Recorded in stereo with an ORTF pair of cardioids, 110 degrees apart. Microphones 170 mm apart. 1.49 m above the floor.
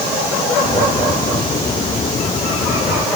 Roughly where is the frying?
I don't hear frying.